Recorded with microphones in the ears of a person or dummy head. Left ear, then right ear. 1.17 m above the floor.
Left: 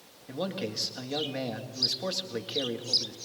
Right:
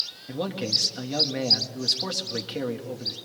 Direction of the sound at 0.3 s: Centre (ahead or behind).